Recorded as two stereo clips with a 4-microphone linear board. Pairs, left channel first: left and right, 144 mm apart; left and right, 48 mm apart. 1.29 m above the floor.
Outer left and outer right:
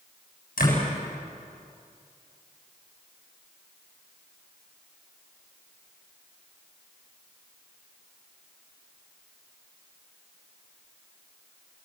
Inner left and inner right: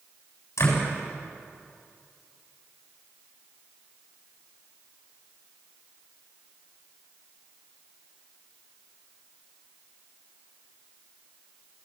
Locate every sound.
0.6 s a door slam: 80° left, 8 m